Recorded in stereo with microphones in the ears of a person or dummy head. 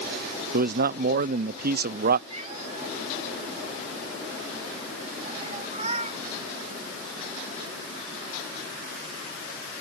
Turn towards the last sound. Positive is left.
turn(degrees=-35)  # may be behind; listen again after turning